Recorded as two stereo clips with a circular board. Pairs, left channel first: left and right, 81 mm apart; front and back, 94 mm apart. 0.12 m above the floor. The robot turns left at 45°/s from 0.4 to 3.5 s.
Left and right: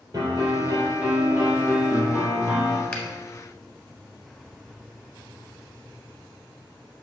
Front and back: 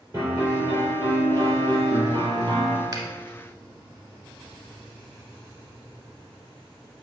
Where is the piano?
130° right, 3 m; by 2.8 s 125° left, 3 m.